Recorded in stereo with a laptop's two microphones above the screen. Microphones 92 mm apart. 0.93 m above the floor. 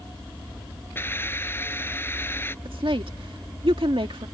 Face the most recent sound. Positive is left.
turn(degrees=-70)  # may be behind; listen again after turning